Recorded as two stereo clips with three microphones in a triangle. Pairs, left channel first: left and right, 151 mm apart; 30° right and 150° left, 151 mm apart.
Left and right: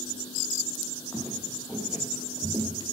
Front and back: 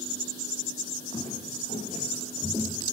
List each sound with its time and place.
1.1 s footsteps: 5° left, 2 m; by 2.8 s 75° right, 1.2 m